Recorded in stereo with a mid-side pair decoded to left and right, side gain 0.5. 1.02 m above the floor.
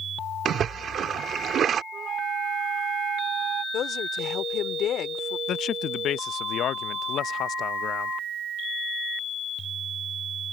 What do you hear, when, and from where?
0.5 s a splash: 55° right
1.9 s a flute: 65° right
3.7 s a woman speaking: 60° left
5.5 s a man speaking: 60° left